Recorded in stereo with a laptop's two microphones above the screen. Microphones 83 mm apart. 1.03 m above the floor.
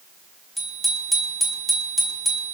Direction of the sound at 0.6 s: Centre (ahead or behind).